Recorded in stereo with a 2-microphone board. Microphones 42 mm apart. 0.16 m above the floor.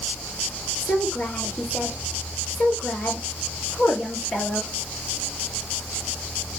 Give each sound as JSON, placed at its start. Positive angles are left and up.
{"t": 0.8, "sound": "a woman speaking", "side_deg": 50, "distance_m": 3.5}